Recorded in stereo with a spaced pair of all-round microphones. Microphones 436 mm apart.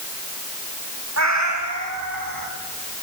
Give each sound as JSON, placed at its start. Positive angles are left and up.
{"t": 1.2, "sound": "a cat meowing", "side_deg": -35, "distance_m": 2.5}